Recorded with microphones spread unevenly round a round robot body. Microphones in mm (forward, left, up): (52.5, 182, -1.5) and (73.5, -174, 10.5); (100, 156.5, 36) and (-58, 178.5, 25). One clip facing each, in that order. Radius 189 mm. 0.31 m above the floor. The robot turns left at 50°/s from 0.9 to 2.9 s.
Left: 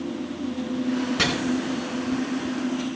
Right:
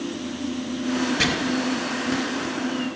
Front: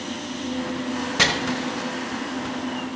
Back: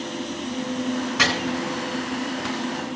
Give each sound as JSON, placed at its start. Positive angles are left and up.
{"t": 1.2, "sound": "chopping", "azimuth_deg": 50, "distance_m": 3.0}